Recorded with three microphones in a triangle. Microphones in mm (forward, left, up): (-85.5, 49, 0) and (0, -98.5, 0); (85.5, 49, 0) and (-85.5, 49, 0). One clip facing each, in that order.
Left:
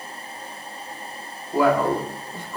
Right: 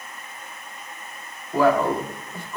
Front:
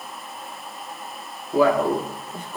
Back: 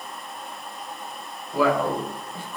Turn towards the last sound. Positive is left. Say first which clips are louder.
# even, front 3 dB
turn(degrees=45)